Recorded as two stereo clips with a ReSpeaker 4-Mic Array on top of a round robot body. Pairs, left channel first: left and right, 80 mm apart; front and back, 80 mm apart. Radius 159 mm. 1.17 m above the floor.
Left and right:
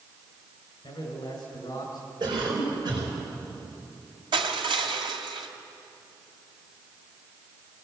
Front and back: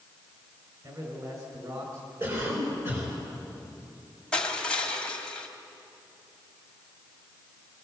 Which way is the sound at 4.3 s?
80° right.